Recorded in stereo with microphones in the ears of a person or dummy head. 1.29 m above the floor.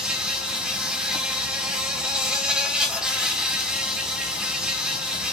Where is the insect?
5° left (ahead or behind), 0.9 m.